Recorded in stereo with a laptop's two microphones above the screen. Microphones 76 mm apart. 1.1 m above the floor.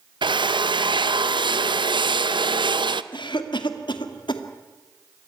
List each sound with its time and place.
0.2 s a drill: 80° right, 0.7 m
3.1 s a cough: 75° left (ahead or behind), 1.9 m